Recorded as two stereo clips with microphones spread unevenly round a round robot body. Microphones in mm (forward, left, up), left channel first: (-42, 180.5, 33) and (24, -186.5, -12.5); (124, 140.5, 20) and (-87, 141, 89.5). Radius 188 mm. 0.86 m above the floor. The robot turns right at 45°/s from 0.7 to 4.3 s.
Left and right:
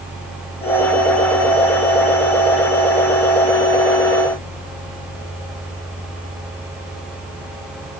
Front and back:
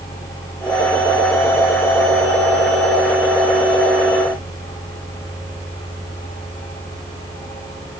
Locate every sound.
Only background noise.